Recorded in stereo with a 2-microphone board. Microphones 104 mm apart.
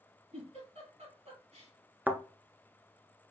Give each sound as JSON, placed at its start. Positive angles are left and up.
{"t": 0.3, "sound": "a giggle", "side_deg": -80, "distance_m": 3.5}
{"t": 2.1, "sound": "a thud", "side_deg": -15, "distance_m": 0.8}